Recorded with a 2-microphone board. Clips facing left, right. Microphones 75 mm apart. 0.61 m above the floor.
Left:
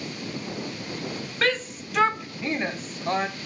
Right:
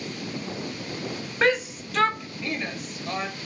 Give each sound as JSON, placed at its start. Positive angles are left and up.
{"t": 1.4, "sound": "a shout", "side_deg": -20, "distance_m": 0.6}